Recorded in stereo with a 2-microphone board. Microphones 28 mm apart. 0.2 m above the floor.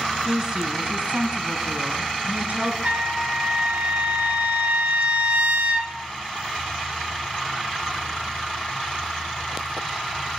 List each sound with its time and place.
0.2 s a woman speaking: 20° right (ahead or behind), 1.2 m; by 2.7 s 60° right (ahead or behind), 2.5 m
2.8 s a trumpet: 55° right (ahead or behind), 1.6 m